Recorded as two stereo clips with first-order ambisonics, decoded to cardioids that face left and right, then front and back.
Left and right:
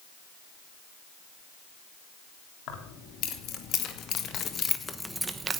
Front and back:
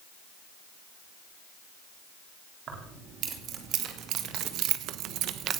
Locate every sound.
2.7 s keys jangling: 125° left, 3 m; by 5.6 s 140° right, 1.0 m